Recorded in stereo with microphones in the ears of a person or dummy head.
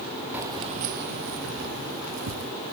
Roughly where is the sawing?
I don't hear sawing.